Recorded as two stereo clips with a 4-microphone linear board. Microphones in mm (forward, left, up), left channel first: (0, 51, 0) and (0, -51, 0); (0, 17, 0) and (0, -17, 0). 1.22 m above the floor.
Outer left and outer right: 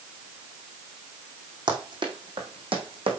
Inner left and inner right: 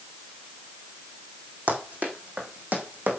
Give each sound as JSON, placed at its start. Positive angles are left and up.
{"t": 1.7, "sound": "running footsteps", "side_deg": -50, "distance_m": 2.5}